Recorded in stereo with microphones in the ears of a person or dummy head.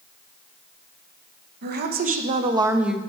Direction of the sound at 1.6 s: 55° right (ahead or behind).